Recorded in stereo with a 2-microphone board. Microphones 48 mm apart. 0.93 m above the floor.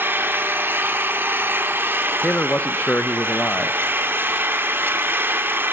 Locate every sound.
0.0 s an engine running: 50° right (ahead or behind), 1.6 m
2.2 s a man speaking: 35° left (ahead or behind), 0.5 m